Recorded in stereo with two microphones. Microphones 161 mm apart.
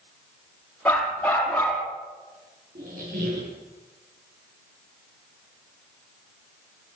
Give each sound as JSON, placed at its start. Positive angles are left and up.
{"t": 0.8, "sound": "a dog barking", "side_deg": 10, "distance_m": 6.0}
{"t": 2.8, "sound": "a squeak", "side_deg": -55, "distance_m": 8.5}